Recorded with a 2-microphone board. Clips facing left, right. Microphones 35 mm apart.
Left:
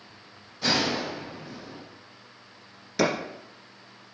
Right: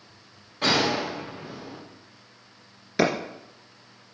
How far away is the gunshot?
About 4.5 m.